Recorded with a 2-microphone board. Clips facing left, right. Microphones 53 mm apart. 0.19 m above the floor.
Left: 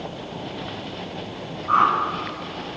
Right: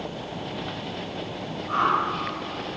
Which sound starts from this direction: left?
A whoosh, at 1.7 s.